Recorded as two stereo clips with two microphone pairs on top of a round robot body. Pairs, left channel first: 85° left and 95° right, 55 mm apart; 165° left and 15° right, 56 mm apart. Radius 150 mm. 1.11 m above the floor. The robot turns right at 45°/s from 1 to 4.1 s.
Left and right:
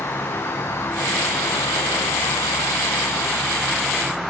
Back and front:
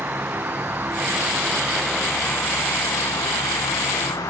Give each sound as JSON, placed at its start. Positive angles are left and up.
{"t": 0.0, "sound": "an insect", "azimuth_deg": 40, "distance_m": 0.8}